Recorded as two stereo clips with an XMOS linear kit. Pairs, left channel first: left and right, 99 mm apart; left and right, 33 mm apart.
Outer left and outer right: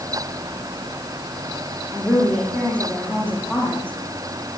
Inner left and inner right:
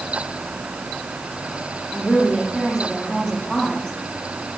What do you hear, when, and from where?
1.9 s a woman speaking: 10° left (ahead or behind), 10 m; by 3.9 s 15° left (ahead or behind), 11 m